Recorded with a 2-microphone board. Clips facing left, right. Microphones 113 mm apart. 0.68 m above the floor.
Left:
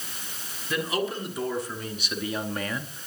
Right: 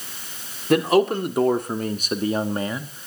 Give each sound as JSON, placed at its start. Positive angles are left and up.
{"t": 0.7, "sound": "a man speaking", "side_deg": -65, "distance_m": 2.0}